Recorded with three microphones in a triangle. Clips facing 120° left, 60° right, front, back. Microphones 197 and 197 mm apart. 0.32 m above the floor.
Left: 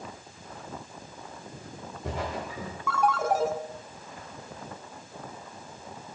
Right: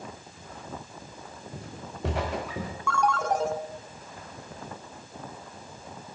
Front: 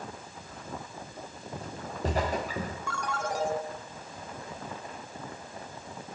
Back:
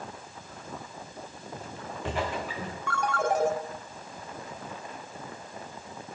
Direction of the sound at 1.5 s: 55° right.